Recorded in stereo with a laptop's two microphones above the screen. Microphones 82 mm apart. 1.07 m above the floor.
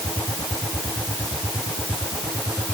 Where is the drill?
No drill in this recording.